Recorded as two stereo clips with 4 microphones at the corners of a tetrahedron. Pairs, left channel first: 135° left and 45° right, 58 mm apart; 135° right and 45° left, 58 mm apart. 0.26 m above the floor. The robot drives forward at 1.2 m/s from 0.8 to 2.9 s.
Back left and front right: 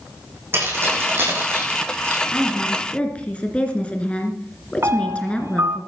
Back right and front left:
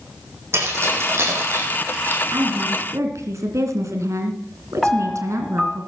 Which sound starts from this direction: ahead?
Keys jangling, at 0.5 s.